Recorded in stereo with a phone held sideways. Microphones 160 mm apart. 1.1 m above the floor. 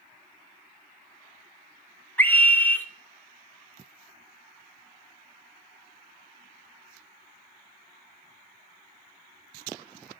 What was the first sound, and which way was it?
A scream, 10° left (ahead or behind).